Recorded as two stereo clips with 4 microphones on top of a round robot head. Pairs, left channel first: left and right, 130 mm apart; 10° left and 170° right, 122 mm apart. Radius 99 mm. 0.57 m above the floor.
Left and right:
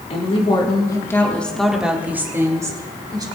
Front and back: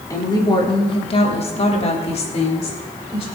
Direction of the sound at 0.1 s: 65° left.